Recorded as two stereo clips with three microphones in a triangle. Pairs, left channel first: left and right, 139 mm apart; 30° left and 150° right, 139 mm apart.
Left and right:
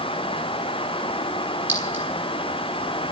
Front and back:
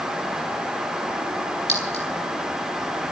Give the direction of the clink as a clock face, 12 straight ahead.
12 o'clock.